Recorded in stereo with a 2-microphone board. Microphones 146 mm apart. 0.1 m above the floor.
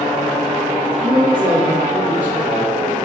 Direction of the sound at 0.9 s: 55° right (ahead or behind).